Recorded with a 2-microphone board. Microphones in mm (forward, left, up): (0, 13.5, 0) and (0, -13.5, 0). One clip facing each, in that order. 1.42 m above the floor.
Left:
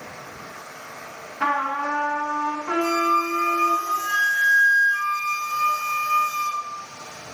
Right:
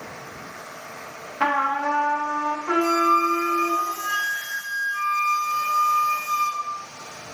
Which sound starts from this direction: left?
A flute, at 2.8 s.